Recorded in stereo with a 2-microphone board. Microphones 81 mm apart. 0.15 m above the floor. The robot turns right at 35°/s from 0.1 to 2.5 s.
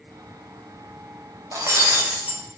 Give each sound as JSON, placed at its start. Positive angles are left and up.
{"t": 1.5, "sound": "breaking glass", "azimuth_deg": -40, "distance_m": 2.0}